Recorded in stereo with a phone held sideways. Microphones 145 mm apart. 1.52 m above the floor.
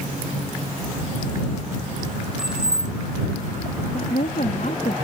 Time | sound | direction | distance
2.4 | keys jangling | 5° right (ahead or behind) | ?
3.9 | a woman speaking | 70° left (ahead or behind) | ?